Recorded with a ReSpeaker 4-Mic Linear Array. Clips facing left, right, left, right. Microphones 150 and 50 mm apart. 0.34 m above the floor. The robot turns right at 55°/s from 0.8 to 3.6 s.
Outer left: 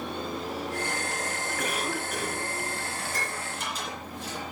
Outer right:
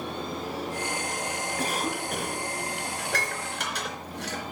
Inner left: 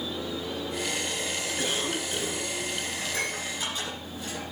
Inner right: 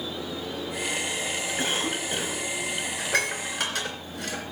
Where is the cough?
145° right, 1.9 m; by 2.5 s 95° right, 1.9 m.